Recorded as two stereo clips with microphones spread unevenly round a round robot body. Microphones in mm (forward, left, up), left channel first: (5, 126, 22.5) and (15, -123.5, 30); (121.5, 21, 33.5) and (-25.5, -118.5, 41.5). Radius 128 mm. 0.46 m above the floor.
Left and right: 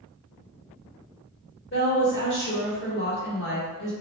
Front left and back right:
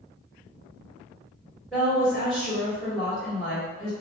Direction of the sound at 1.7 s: 135° left.